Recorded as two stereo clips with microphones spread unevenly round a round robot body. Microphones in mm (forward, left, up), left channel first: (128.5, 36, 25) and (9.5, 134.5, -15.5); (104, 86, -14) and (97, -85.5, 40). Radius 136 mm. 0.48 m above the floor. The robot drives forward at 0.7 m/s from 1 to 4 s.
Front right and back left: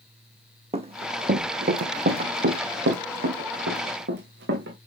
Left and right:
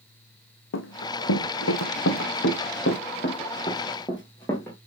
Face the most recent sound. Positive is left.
turn(degrees=175)